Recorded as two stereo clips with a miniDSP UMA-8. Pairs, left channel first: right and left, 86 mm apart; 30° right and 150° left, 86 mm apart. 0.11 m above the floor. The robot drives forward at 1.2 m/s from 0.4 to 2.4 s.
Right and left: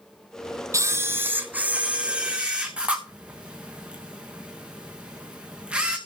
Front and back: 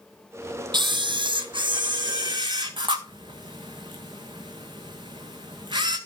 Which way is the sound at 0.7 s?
135° left.